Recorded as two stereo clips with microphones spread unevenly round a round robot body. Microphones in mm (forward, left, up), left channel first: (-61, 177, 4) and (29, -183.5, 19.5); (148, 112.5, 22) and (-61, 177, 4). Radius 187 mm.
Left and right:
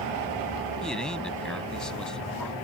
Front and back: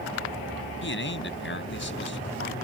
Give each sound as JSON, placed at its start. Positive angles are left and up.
{"t": 0.8, "sound": "a man speaking", "azimuth_deg": 15}